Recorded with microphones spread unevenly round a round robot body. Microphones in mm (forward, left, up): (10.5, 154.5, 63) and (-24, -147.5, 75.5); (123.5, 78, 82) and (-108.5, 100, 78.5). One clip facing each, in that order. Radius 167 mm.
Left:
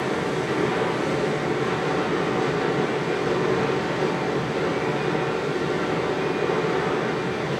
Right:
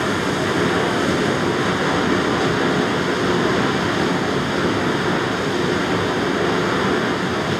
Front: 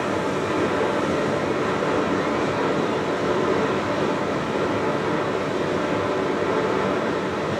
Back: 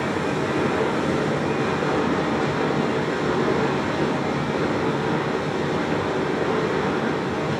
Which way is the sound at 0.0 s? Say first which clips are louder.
Right 4 dB, even; 115° right.